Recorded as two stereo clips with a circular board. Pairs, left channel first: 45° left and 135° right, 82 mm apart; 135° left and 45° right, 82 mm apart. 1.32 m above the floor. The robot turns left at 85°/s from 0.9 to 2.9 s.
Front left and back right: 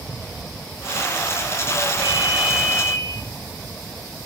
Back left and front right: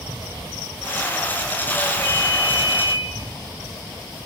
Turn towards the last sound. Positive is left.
turn(degrees=110)